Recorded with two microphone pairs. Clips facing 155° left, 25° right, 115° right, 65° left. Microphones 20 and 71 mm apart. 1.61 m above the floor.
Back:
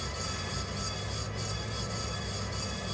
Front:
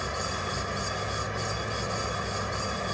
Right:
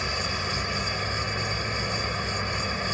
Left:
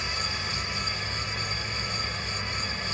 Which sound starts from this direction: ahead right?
A vehicle, at 0.0 s.